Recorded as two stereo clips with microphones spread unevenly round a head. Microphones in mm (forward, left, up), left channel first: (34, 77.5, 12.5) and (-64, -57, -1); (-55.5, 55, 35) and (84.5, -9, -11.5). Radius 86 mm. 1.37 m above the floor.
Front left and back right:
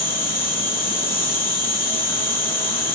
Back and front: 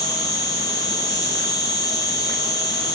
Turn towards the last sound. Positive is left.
turn(degrees=85)